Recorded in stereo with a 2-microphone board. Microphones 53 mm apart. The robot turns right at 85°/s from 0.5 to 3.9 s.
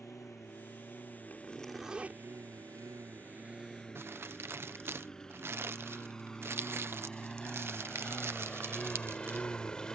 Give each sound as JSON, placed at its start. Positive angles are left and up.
{"t": 0.0, "sound": "a lawn mower", "side_deg": 80}
{"t": 1.3, "sound": "a zipper", "azimuth_deg": 140}
{"t": 4.0, "sound": "crumpling", "side_deg": -50}